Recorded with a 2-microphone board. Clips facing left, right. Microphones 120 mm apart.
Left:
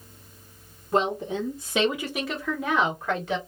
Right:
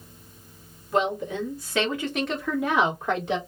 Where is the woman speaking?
35° left (ahead or behind), 1.2 m; by 3.4 s 20° right (ahead or behind), 1.3 m.